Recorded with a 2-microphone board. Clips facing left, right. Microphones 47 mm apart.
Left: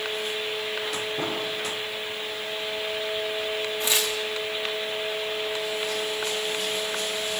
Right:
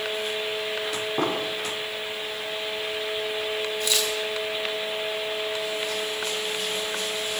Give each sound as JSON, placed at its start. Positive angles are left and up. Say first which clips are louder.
{"t": 1.2, "sound": "an explosion", "louder": "right 3 dB", "side_deg": -50, "distance_m": 1.9}
{"t": 3.8, "sound": "tearing paper", "louder": "left 1 dB", "side_deg": 25, "distance_m": 5.5}